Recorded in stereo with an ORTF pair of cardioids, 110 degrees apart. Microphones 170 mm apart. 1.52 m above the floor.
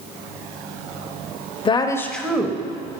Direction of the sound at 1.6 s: 30° left.